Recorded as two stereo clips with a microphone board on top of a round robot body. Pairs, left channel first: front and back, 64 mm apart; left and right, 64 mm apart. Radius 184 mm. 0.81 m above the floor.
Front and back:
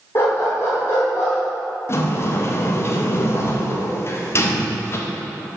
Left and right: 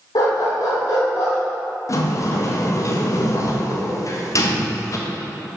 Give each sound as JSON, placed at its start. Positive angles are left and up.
{"t": 0.1, "sound": "a dog barking", "azimuth_deg": 55, "distance_m": 1.2}
{"t": 1.9, "sound": "a sliding door", "azimuth_deg": 50, "distance_m": 0.8}